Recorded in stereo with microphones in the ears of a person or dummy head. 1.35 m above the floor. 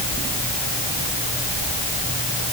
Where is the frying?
I don't hear frying.